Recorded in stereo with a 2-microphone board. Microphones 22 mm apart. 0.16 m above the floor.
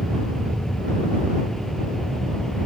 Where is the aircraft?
10° left (ahead or behind); by 2.7 s 5° left (ahead or behind).